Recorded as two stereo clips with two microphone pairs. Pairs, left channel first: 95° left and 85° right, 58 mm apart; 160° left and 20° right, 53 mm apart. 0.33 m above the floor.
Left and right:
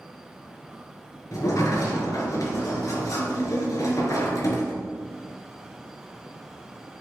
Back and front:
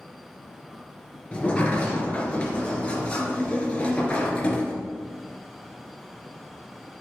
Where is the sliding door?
90° left, 2.5 m.